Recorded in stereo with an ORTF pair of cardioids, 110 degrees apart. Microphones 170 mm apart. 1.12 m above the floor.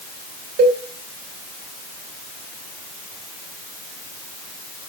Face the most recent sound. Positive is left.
turn(degrees=-65)